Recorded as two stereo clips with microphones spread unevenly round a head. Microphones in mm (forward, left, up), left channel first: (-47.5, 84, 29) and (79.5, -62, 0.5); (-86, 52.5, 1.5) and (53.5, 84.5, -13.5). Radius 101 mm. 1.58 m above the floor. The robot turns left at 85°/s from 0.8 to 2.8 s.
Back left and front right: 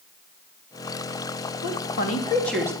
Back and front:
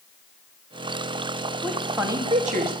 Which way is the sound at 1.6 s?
120° left.